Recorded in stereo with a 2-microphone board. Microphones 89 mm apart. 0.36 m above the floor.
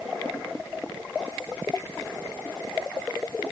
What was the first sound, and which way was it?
Only background noise.